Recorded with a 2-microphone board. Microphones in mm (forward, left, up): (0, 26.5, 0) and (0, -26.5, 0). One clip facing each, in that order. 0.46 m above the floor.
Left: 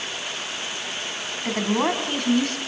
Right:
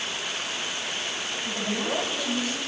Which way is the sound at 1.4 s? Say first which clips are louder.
Left 8 dB; 55° left (ahead or behind).